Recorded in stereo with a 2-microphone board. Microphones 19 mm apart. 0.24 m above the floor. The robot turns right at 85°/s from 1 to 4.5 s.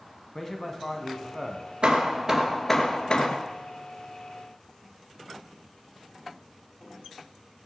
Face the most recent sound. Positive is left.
turn(degrees=160)